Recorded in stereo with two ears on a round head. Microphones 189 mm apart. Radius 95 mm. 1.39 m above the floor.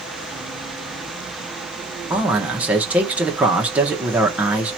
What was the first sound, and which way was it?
A man speaking, 5° right (ahead or behind).